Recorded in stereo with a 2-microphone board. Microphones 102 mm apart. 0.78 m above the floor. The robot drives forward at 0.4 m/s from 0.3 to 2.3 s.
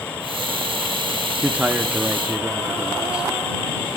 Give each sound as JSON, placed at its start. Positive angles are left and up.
{"t": 1.4, "sound": "a man speaking", "side_deg": -15, "distance_m": 0.9}